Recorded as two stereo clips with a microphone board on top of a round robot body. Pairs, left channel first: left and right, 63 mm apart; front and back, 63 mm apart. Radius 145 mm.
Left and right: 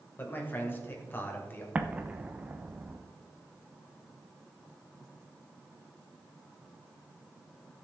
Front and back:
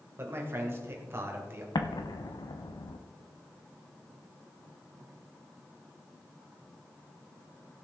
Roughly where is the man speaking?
Behind left.